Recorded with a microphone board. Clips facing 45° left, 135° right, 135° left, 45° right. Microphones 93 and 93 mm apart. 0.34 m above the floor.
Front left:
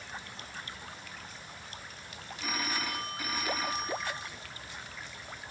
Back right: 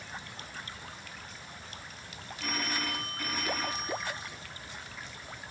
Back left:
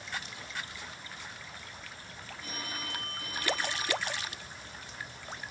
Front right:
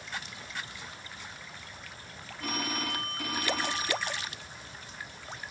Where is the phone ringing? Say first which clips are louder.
Even, front right 8 dB; 40° right, 1.7 m.